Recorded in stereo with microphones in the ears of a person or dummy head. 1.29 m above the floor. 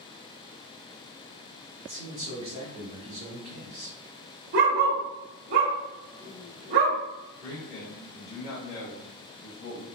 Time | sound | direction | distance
1.8 | a man speaking | 45° right (ahead or behind) | 1.9 m
4.5 | a dog barking | 55° right (ahead or behind) | 1.4 m
7.4 | a man speaking | 40° left (ahead or behind) | 0.9 m